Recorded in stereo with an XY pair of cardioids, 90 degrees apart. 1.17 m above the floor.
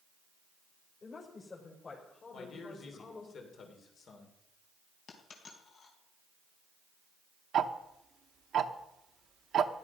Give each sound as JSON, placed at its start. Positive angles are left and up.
{"t": 1.0, "sound": "a woman speaking", "azimuth_deg": 45, "distance_m": 4.5}
{"t": 2.3, "sound": "a man speaking", "azimuth_deg": 65, "distance_m": 3.0}
{"t": 5.1, "sound": "a dropped coin", "azimuth_deg": 65, "distance_m": 3.5}
{"t": 7.5, "sound": "ticking", "azimuth_deg": -65, "distance_m": 1.1}